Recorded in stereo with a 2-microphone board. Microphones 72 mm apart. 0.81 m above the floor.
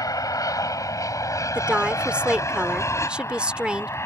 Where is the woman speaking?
15° right (ahead or behind).